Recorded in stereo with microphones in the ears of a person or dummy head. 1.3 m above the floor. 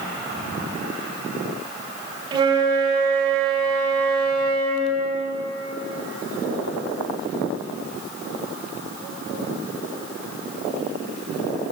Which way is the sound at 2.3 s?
30° right (ahead or behind).